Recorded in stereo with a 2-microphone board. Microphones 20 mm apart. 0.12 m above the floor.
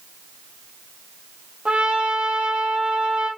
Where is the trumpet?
60° right (ahead or behind), 1.9 m.